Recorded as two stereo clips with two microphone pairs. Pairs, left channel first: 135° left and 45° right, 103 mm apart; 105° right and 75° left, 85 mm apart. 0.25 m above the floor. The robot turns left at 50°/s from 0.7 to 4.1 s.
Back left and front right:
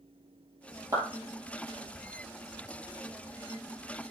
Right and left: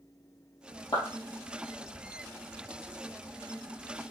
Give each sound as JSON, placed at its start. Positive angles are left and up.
{"t": 0.9, "sound": "a clap", "azimuth_deg": -90, "distance_m": 4.0}